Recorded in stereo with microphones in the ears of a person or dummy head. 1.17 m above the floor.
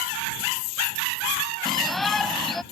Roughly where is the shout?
Centre.